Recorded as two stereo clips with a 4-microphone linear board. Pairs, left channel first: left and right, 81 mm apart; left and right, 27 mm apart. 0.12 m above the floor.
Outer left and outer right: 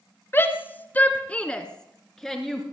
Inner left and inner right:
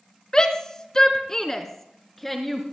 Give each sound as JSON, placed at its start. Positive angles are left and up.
{"t": 0.3, "sound": "a shout", "side_deg": 30, "distance_m": 1.5}